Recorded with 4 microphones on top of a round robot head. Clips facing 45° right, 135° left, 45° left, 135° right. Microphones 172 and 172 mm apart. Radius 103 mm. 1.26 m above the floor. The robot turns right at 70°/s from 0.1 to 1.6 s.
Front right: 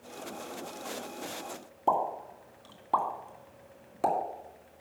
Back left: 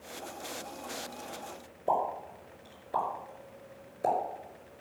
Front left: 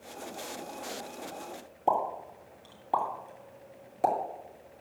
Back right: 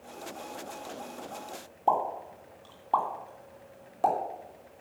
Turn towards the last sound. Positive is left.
turn(degrees=-30)